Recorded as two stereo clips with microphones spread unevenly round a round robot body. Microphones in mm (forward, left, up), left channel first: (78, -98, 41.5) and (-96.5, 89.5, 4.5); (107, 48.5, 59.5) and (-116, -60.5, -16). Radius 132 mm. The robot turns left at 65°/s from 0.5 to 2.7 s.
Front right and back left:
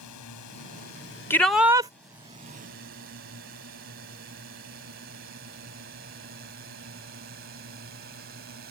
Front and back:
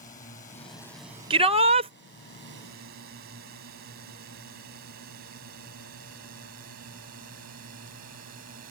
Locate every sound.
0.0 s a drone: 40° right; by 8.7 s 170° left
1.3 s a shout: 135° right; by 1.9 s 175° right